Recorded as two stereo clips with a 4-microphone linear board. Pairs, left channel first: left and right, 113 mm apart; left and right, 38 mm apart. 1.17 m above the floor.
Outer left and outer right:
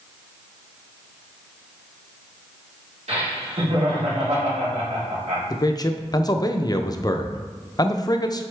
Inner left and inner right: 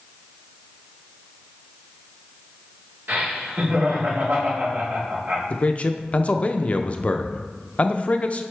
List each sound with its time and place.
3.1 s laughter: 75° right (ahead or behind), 3 m
5.5 s a man speaking: 35° left (ahead or behind), 0.5 m